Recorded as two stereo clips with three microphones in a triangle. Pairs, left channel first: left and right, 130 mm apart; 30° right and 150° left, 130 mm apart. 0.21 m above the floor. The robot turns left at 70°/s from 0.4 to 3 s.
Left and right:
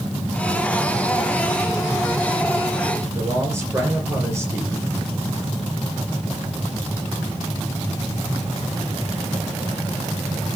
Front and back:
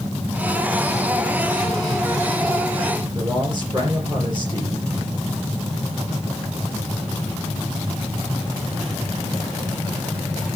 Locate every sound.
3.1 s a man speaking: 160° right, 4.5 m